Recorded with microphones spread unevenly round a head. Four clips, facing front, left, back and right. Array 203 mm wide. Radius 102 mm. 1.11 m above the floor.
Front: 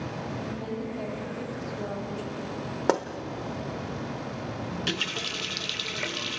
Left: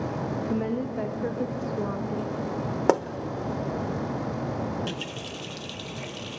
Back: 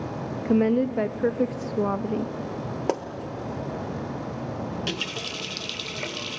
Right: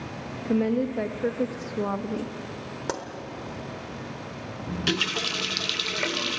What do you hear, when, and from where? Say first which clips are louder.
0.5 s a woman speaking: right 7 dB, back 12 dB; 150° right, 1.3 m
2.9 s a pop: left 10 dB, front 2 dB; 75° left, 1.0 m
4.7 s a running tap: right 2 dB, back 1 dB; 90° right, 0.6 m